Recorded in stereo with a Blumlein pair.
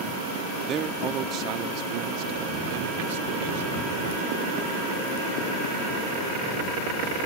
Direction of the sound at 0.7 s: 25° right.